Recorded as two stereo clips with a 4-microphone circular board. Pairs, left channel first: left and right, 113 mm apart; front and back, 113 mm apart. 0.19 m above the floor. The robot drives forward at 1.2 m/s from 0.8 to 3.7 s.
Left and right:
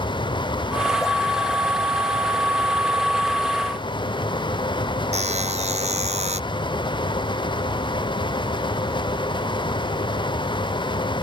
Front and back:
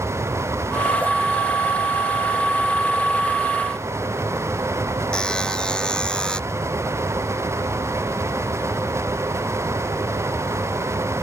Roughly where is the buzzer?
Right.